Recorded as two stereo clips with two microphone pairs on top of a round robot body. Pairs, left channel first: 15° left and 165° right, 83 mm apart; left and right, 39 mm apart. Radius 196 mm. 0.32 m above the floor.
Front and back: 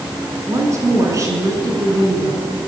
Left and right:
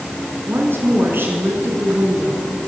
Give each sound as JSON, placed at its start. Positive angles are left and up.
{"t": 0.5, "sound": "a woman speaking", "azimuth_deg": -110, "distance_m": 6.0}